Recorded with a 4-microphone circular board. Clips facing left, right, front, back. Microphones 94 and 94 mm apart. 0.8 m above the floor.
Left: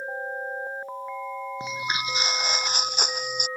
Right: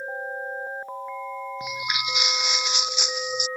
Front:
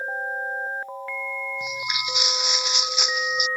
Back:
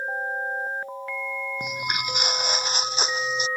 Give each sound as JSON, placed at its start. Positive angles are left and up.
{"t": 1.6, "sound": "footsteps", "azimuth_deg": 145}